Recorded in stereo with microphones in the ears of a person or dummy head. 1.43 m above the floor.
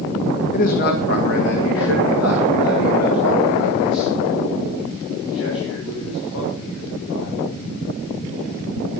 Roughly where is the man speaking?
Left.